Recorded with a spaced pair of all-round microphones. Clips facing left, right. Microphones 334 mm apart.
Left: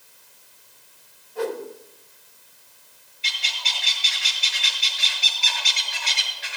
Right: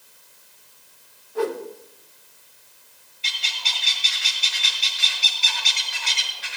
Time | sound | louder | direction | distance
1.4 | a whoosh | right 2 dB | 75° right (ahead or behind) | 2.5 m
3.2 | a bird | left 1 dB | 65° right (ahead or behind) | 5.5 m